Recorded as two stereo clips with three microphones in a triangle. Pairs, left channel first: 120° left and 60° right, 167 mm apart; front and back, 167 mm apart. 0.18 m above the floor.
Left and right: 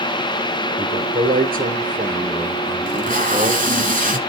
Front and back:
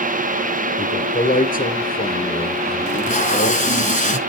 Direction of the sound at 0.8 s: 40° right.